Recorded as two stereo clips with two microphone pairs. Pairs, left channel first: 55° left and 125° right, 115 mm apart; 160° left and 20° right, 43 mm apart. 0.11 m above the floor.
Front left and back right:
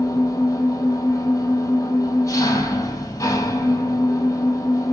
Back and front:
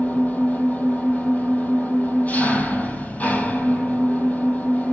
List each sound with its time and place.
0.0 s an engine running: 115° left, 1.8 m